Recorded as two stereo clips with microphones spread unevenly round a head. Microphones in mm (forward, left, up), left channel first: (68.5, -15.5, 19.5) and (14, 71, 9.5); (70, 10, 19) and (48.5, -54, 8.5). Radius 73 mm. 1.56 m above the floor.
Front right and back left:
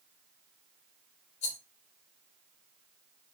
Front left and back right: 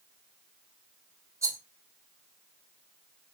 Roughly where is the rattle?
Ahead right.